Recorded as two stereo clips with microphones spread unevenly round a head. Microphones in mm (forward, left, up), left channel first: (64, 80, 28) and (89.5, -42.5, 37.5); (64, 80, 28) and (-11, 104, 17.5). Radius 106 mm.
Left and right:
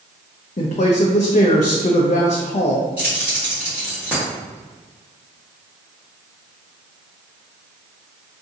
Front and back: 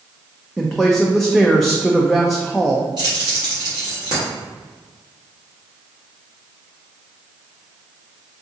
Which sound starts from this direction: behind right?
Keys jangling, at 3.0 s.